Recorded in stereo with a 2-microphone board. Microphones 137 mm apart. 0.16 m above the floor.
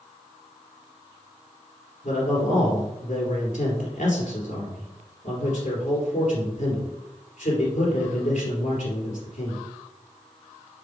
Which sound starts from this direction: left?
A man speaking, at 2.0 s.